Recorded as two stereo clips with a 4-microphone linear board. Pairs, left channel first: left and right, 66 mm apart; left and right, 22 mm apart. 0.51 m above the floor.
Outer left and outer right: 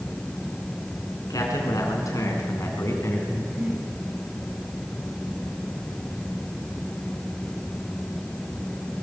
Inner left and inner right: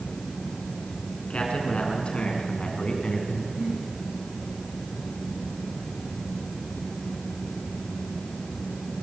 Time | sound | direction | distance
1.3 | a man speaking | 60° left (ahead or behind) | 7 m
3.3 | breathing | 35° right (ahead or behind) | 9.5 m